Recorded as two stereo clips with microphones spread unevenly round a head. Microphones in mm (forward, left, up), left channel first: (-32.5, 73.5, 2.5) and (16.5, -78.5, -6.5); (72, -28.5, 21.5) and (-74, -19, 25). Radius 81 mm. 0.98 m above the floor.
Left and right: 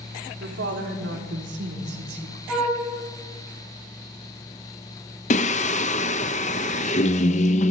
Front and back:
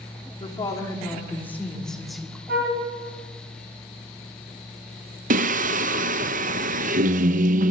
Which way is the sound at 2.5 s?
165° right.